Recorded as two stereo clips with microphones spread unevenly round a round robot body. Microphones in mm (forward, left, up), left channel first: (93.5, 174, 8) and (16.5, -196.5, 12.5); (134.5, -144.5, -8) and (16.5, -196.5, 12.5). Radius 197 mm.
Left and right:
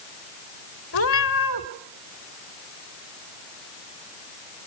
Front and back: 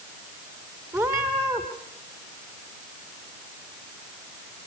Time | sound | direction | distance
0.9 | a cat meowing | 135° left | 1.0 m